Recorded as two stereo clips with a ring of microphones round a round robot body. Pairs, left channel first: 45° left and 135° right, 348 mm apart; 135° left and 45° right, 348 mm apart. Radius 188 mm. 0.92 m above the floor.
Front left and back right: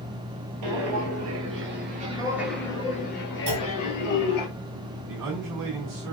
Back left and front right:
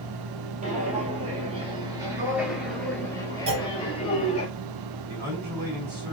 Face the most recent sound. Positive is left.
turn(degrees=-105)